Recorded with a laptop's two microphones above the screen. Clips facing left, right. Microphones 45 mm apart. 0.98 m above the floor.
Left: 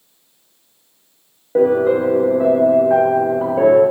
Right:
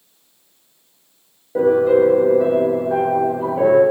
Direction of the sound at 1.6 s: 35° left (ahead or behind).